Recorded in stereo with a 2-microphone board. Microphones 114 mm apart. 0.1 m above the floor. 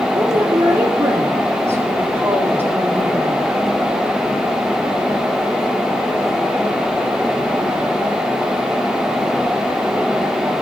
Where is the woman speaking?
30° right (ahead or behind), 2.5 m; by 3.5 s 15° right (ahead or behind), 5 m.